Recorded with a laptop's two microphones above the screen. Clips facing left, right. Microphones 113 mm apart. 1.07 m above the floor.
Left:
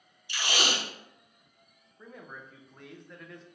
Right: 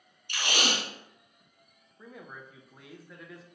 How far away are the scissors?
I don't hear scissors.